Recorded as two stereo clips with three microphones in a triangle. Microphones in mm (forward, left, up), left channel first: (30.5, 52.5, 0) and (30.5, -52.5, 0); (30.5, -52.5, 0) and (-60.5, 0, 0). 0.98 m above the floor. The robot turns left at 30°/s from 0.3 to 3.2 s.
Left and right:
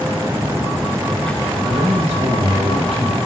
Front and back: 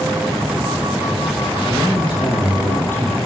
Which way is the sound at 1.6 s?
60° right.